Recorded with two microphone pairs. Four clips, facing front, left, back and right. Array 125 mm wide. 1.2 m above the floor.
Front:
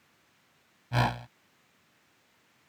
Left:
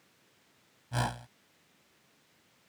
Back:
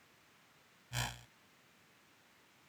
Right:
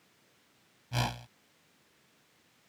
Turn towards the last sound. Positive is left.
turn(degrees=0)